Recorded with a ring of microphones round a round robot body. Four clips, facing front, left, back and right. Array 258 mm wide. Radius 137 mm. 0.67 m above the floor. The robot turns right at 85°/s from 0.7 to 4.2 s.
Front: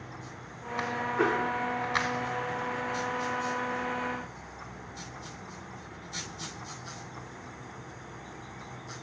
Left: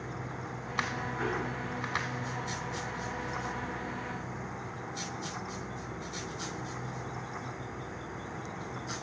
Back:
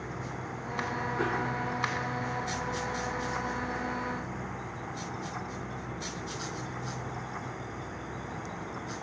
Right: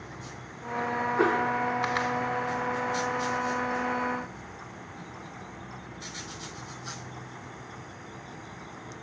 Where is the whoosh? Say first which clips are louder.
Right 10 dB, front 5 dB; 75° right, 2 m; by 1.5 s 50° right, 2 m.